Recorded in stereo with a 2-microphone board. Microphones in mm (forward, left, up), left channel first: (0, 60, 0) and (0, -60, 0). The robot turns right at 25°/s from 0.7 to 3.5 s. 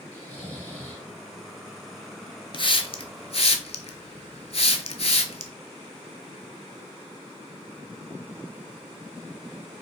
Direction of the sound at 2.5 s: 45° left (ahead or behind).